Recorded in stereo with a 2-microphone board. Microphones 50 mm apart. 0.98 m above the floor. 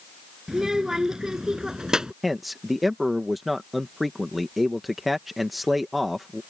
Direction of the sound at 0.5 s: 10° right (ahead or behind).